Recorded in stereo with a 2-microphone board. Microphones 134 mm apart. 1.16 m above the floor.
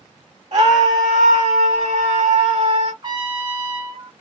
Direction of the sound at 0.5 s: 55° right (ahead or behind).